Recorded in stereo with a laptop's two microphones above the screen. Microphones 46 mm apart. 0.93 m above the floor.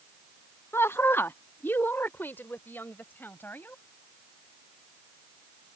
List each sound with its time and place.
0.7 s a woman speaking: 65° left (ahead or behind); by 3.8 s 45° left (ahead or behind)